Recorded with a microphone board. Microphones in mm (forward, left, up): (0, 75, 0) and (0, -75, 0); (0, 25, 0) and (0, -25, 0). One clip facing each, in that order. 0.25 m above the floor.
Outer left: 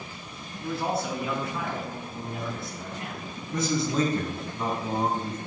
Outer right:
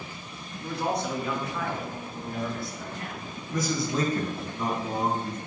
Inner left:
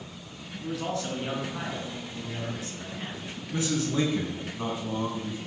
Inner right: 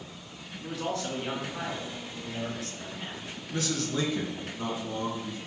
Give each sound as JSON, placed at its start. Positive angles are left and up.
{"t": 0.6, "sound": "a man speaking", "side_deg": 0, "distance_m": 2.5}
{"t": 3.5, "sound": "a man speaking", "side_deg": 25, "distance_m": 2.0}